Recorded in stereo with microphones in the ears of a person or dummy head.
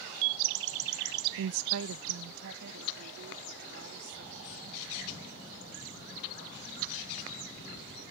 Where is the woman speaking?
80° right; by 7.0 s 60° right (ahead or behind).